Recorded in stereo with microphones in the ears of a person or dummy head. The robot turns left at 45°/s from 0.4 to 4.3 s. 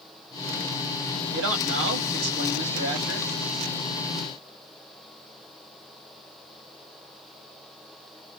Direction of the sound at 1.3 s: 85° right.